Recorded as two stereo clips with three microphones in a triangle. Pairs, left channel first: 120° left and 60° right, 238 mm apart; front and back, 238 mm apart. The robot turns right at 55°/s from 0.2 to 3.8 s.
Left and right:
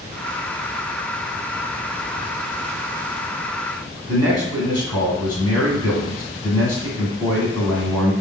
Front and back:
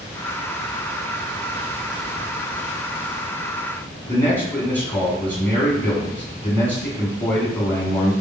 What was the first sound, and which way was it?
A man speaking, 75° left.